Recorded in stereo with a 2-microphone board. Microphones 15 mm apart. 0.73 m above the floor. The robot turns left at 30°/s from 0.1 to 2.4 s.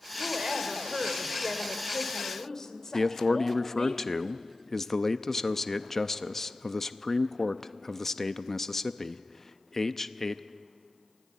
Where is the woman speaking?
150° right, 2 m; by 3.9 s 145° left, 2 m.